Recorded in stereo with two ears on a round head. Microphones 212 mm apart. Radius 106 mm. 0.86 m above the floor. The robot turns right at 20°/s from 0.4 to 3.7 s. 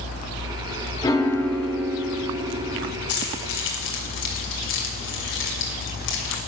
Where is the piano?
165° left, 0.9 m; by 2.9 s 160° right, 0.9 m.